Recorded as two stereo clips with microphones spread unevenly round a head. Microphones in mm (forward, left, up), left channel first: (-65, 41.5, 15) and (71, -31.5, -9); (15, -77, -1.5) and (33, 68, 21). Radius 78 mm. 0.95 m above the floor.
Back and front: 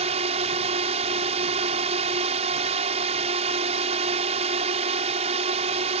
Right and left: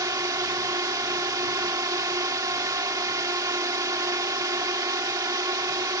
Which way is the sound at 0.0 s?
15° left.